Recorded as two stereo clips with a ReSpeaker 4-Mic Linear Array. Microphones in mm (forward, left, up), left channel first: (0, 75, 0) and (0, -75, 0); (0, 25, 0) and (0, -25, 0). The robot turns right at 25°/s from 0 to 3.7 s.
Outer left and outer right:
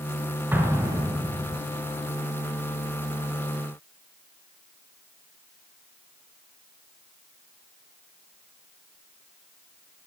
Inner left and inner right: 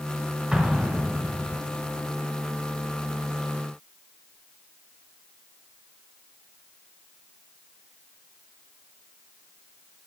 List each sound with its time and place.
0.5 s an explosion: 15° right (ahead or behind), 1.5 m; by 1.6 s 35° right (ahead or behind), 1.5 m